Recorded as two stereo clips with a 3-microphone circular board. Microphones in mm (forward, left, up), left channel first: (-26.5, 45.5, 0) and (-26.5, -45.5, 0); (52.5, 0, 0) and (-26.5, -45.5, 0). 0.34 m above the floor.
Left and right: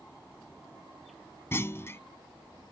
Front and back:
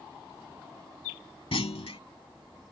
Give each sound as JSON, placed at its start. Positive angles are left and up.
{"t": 1.5, "sound": "a clunk", "azimuth_deg": 30}